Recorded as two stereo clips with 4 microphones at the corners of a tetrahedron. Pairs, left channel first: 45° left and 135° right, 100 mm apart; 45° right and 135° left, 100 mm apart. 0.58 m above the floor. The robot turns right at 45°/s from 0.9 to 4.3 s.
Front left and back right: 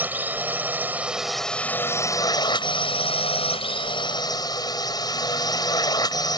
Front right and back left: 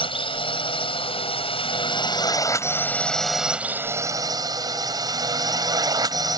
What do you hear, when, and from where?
0.0 s a drone: 65° right; by 6.4 s 90° left